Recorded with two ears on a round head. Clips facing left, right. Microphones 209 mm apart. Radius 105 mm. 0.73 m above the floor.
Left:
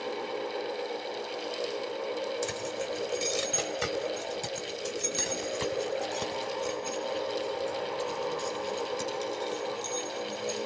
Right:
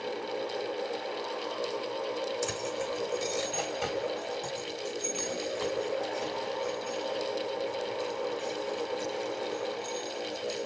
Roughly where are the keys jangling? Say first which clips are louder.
Even; centre.